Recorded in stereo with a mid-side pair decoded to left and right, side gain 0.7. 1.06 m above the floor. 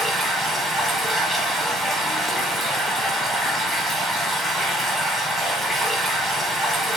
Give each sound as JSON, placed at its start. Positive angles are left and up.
{"t": 0.0, "sound": "running water", "azimuth_deg": -15, "distance_m": 1.1}